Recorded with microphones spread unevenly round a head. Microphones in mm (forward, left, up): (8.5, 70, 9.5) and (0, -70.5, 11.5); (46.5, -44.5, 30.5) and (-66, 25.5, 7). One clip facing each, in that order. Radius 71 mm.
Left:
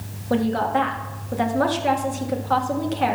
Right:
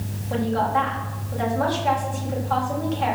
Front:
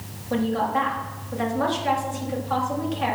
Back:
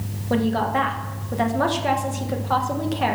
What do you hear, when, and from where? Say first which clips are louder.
0.3 s a woman speaking: left 2 dB, back 2 dB; 115° left, 1.6 m